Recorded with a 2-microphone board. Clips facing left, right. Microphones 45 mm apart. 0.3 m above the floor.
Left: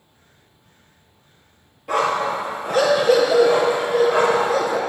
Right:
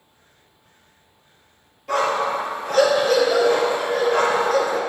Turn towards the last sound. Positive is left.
turn(degrees=15)  # may be behind; listen again after turning